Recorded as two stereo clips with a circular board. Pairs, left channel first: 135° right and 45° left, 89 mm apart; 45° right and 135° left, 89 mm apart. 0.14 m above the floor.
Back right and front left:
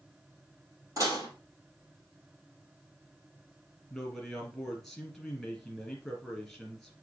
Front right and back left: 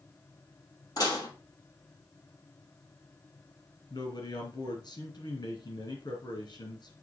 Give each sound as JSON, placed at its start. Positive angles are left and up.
{"t": 1.0, "sound": "dishes clattering", "azimuth_deg": -5, "distance_m": 3.0}
{"t": 3.9, "sound": "a man speaking", "azimuth_deg": -50, "distance_m": 2.5}